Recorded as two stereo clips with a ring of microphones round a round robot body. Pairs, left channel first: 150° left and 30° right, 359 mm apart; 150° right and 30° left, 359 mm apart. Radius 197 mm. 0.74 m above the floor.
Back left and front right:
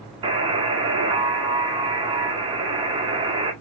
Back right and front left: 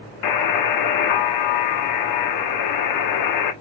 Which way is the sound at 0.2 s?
110° right.